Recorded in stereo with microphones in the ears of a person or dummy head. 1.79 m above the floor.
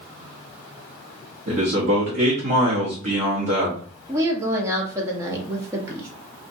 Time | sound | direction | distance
1.5 | a man speaking | 45° right (ahead or behind) | 1.0 m
4.1 | a woman speaking | 20° right (ahead or behind) | 0.7 m